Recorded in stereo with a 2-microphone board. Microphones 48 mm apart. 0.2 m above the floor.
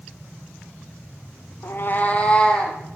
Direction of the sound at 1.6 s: 65° left (ahead or behind).